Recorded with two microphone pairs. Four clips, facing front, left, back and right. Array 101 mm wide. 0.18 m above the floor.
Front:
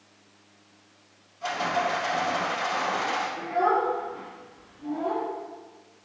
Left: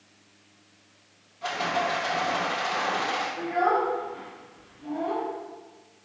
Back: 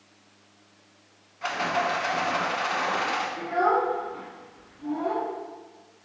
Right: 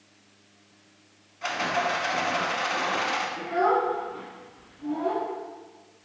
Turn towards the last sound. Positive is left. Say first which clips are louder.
# right 1 dB, back 1 dB
turn(degrees=-155)